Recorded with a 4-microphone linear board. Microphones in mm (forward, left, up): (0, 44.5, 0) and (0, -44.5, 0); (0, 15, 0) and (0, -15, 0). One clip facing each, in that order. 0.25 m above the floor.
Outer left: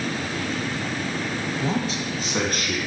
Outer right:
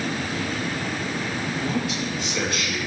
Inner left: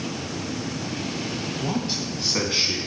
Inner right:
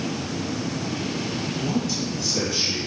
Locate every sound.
1.6 s a man speaking: 30° left (ahead or behind), 1.0 m; by 2.8 s 50° left (ahead or behind), 2 m